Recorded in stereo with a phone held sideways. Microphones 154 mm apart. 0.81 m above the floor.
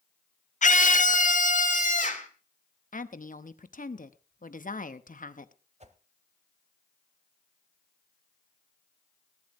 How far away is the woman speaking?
About 0.8 m.